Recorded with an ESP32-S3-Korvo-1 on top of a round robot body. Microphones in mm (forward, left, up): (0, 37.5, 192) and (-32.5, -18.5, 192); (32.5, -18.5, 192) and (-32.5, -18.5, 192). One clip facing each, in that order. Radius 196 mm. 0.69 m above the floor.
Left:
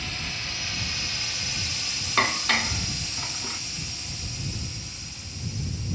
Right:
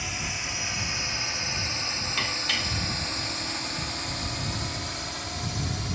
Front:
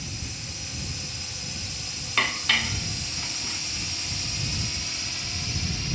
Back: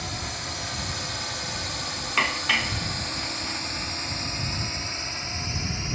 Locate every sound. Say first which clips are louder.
0.0 s a drone: right 1 dB, back 6 dB; 165° left; by 5.9 s 120° right
2.2 s dishes clattering: left 8 dB, back 1 dB; 100° left